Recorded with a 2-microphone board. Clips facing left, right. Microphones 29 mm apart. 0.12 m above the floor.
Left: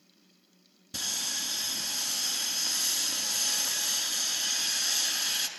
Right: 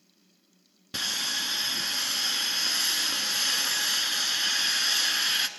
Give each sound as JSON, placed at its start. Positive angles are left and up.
{"t": 0.9, "sound": "sawing", "side_deg": -35, "distance_m": 0.8}